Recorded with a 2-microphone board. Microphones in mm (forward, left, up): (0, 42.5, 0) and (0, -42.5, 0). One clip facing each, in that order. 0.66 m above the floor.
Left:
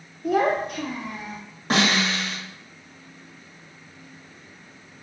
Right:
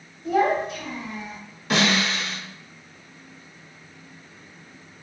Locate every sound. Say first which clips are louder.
0.2 s a child speaking: even; 60° left (ahead or behind), 0.7 m; by 1.4 s 50° left (ahead or behind), 1.0 m
1.7 s a snare drum: even; 35° left (ahead or behind), 1.4 m